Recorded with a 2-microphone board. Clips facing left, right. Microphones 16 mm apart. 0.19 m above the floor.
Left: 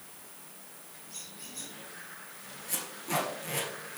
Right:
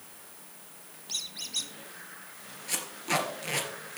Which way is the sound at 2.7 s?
40° right (ahead or behind).